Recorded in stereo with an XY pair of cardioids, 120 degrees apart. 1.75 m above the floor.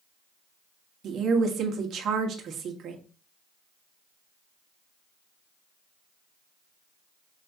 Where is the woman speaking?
50° right, 1.3 m.